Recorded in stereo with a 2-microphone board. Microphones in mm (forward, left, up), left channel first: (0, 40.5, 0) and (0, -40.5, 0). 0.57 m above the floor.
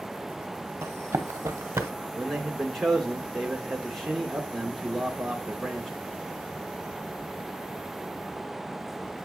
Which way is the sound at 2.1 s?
Centre (ahead or behind).